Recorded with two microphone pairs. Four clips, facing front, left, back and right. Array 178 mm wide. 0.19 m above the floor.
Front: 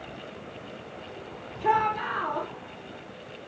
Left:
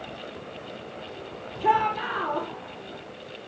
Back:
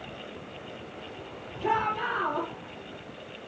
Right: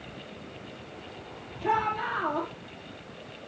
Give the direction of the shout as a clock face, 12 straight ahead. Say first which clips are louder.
Left 5 dB, front 3 dB; 9 o'clock.